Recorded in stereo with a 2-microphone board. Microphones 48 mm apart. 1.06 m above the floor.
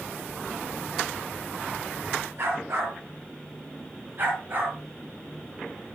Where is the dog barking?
60° right (ahead or behind), 6.5 m; by 4.8 s 45° right (ahead or behind), 7 m.